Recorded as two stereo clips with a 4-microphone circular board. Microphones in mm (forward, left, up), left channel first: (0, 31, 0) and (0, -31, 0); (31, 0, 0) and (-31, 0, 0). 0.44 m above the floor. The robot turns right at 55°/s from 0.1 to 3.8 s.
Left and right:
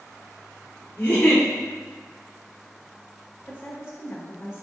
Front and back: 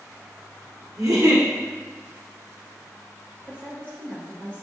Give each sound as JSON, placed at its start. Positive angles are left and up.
{"t": 1.0, "sound": "a giggle", "azimuth_deg": 150, "distance_m": 1.5}
{"t": 3.5, "sound": "a woman speaking", "azimuth_deg": 40, "distance_m": 1.4}